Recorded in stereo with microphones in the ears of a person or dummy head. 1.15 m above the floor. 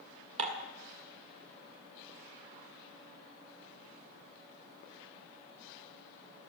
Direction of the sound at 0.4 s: 40° right (ahead or behind).